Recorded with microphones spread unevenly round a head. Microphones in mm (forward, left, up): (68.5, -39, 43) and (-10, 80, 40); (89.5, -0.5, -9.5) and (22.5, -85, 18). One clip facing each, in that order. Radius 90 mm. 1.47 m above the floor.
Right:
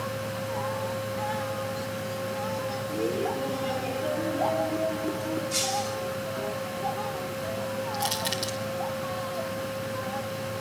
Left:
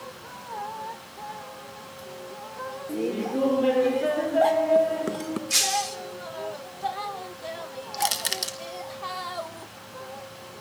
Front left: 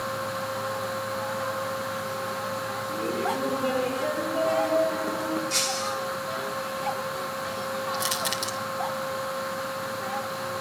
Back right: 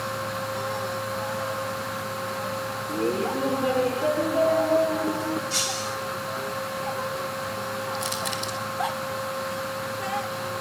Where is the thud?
No thud in this recording.